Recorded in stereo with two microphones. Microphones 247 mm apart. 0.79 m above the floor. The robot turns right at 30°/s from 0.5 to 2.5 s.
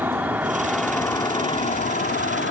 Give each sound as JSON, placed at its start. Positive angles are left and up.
{"t": 0.0, "sound": "an insect", "azimuth_deg": -5}